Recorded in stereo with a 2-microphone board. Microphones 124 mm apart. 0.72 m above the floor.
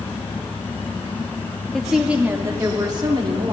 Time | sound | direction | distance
1.7 | a woman speaking | 5° left (ahead or behind) | 1.1 m